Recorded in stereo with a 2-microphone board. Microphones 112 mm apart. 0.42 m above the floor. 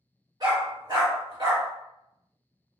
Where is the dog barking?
40° right (ahead or behind), 1.7 m.